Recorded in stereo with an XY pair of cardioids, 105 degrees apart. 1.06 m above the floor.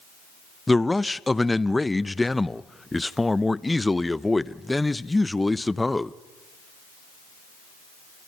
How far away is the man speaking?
About 0.6 m.